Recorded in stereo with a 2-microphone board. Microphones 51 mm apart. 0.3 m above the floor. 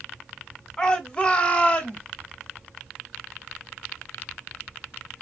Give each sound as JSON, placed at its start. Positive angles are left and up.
{"t": 0.8, "sound": "a shout", "side_deg": 20, "distance_m": 1.2}